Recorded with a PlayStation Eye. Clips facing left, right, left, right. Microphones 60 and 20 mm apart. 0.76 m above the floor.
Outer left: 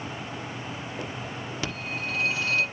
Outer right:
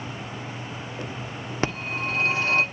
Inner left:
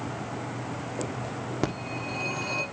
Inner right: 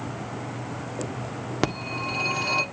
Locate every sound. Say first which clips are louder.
1.6 s a phone ringing: outer right 6 dB, inner right 5 dB; 45° right (ahead or behind), 1.4 m